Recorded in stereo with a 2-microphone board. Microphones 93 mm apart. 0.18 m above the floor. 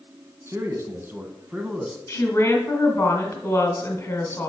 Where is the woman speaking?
30° left (ahead or behind), 1.5 m.